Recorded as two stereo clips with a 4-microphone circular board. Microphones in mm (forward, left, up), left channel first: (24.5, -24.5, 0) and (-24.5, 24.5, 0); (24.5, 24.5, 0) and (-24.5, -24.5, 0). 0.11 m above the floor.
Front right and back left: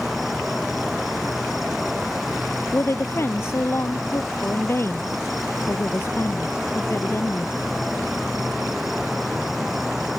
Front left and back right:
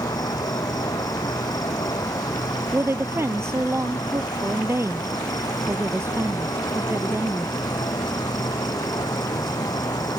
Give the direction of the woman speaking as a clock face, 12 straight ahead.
3 o'clock.